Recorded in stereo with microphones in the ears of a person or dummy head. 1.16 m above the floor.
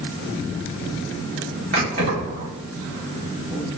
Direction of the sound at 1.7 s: 60° right (ahead or behind).